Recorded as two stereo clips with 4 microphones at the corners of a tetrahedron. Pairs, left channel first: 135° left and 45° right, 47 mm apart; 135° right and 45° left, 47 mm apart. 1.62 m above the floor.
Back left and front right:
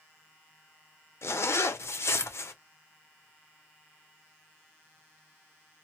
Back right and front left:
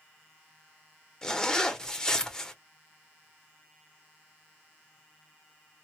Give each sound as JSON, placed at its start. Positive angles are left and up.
{"t": 1.2, "sound": "a zipper", "azimuth_deg": 150, "distance_m": 0.6}